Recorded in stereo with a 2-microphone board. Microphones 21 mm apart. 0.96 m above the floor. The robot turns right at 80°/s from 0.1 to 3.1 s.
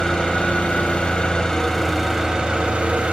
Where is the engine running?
35° left, 5.5 m; by 3.1 s 85° right, 5.5 m.